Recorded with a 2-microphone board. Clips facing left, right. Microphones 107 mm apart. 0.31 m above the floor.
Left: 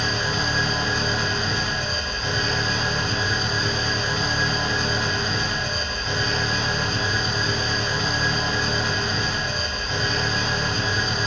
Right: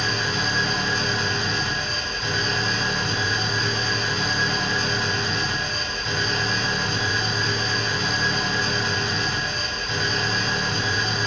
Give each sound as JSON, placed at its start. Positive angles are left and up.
{"t": 0.0, "sound": "an engine running", "side_deg": 5, "distance_m": 1.2}